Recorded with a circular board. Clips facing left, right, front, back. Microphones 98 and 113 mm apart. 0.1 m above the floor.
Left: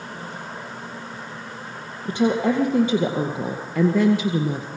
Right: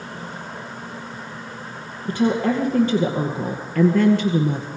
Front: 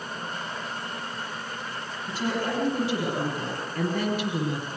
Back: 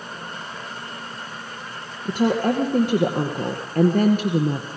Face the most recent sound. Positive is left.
turn(degrees=175)